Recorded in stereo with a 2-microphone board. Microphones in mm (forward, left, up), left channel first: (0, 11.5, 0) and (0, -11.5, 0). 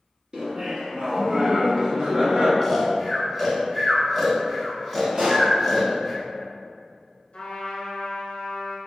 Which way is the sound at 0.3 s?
40° right (ahead or behind).